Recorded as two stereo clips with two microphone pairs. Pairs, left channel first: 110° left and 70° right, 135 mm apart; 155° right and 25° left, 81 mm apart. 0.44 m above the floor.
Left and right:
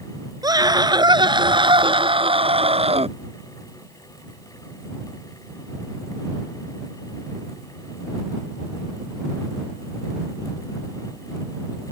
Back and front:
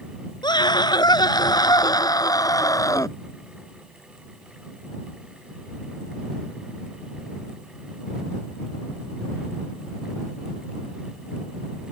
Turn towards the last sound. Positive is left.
turn(degrees=-110)